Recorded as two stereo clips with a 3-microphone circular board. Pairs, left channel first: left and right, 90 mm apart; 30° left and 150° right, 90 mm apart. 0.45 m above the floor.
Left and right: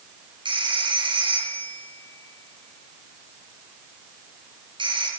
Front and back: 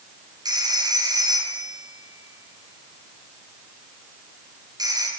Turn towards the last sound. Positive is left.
turn(degrees=-110)